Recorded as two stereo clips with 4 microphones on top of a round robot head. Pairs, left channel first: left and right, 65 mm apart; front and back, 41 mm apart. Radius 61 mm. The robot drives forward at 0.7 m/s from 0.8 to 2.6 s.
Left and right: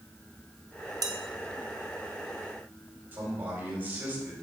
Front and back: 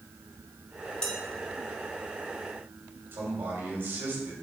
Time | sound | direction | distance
1.0 | dishes clattering | 65° right | 1.0 m
3.1 | a man speaking | 150° right | 2 m